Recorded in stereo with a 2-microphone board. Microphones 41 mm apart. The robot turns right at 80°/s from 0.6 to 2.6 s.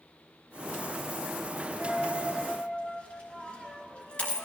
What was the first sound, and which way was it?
A dropped coin, 35° right (ahead or behind).